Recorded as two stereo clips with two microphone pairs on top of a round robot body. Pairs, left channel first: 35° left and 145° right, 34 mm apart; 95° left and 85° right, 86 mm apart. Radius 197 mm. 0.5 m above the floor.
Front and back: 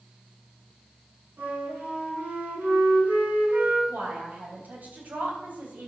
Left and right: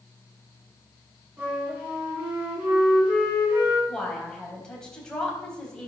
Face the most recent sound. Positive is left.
turn(degrees=175)